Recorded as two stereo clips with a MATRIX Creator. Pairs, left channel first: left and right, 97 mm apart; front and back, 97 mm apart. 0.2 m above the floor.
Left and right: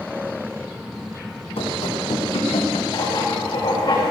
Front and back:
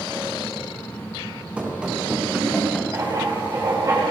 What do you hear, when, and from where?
1.6 s running footsteps: 105° left, 3.5 m; by 2.8 s 80° left, 2.5 m
2.9 s writing: 130° left, 6 m